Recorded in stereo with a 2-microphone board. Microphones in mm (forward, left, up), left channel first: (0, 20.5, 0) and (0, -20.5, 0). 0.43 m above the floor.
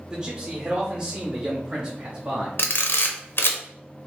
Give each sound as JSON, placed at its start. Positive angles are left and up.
{"t": 0.1, "sound": "a man speaking", "side_deg": -20, "distance_m": 1.3}
{"t": 2.6, "sound": "a camera shutter", "side_deg": 65, "distance_m": 0.6}